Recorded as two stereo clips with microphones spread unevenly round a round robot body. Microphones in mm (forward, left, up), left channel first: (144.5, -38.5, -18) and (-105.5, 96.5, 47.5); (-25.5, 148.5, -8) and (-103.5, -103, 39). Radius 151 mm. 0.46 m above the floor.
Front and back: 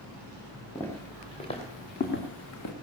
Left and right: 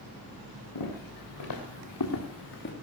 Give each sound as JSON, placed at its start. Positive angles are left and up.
{"t": 0.8, "sound": "footsteps", "azimuth_deg": 55, "distance_m": 4.0}